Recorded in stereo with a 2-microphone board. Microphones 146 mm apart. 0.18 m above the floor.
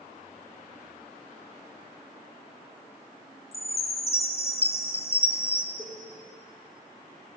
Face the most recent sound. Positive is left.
turn(degrees=-10)  # may be behind; listen again after turning